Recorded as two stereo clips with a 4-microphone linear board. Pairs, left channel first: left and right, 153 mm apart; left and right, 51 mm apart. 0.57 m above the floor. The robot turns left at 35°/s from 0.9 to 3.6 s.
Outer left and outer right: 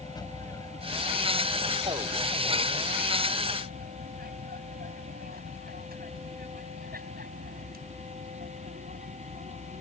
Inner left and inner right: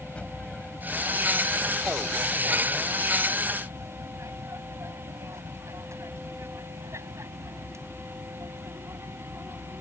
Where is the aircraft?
25° left (ahead or behind); by 9.8 s 60° right (ahead or behind).